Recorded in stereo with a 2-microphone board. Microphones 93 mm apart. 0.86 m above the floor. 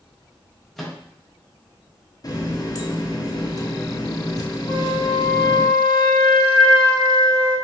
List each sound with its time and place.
0.8 s a microwave: centre (ahead or behind), 0.6 m
2.2 s a running tap: 40° left (ahead or behind), 0.5 m
4.7 s a flute: 70° left (ahead or behind), 1.5 m